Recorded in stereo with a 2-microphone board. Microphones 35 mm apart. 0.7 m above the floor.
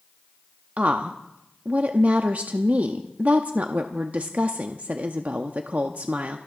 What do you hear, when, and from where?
0.8 s a woman speaking: 50° right (ahead or behind), 0.8 m